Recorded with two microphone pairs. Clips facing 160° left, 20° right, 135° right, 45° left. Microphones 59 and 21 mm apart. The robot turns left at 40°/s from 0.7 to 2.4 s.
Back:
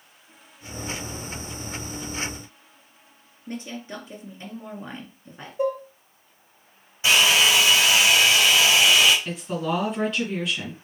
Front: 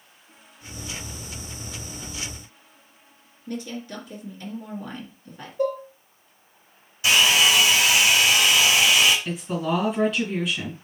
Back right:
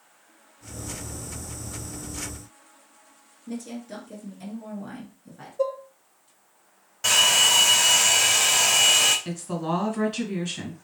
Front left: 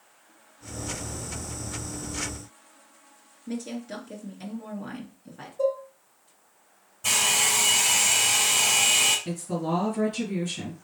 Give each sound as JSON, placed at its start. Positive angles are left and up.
{"t": 3.5, "sound": "a woman speaking", "azimuth_deg": 105, "distance_m": 2.0}
{"t": 5.6, "sound": "dishes clattering", "azimuth_deg": 180, "distance_m": 0.7}
{"t": 7.0, "sound": "a hair dryer", "azimuth_deg": -140, "distance_m": 2.5}
{"t": 9.2, "sound": "a woman speaking", "azimuth_deg": -110, "distance_m": 1.8}